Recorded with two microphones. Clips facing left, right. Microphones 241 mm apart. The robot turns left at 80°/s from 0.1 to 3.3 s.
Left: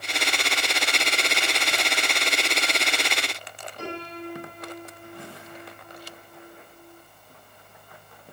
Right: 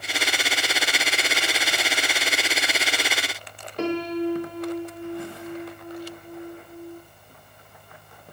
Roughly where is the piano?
Right.